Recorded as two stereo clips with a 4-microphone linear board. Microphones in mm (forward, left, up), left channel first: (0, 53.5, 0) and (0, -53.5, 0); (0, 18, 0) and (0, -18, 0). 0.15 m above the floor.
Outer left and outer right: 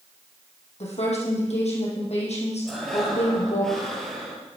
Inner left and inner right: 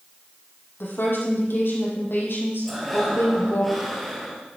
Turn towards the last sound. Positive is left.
turn(degrees=5)  # may be behind; listen again after turning